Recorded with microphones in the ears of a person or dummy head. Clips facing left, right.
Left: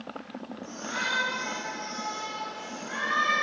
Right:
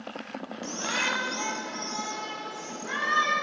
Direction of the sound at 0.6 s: 70° right (ahead or behind).